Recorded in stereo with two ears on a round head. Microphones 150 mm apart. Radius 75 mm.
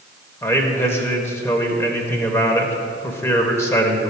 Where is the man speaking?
15° left (ahead or behind), 1.1 m.